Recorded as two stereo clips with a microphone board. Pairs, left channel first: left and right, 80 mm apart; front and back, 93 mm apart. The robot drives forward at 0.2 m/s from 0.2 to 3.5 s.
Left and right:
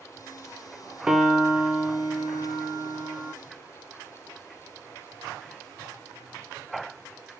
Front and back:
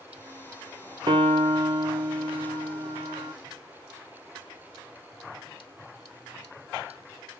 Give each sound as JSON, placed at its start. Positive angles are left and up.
{"t": 1.1, "sound": "a piano", "azimuth_deg": -170, "distance_m": 0.5}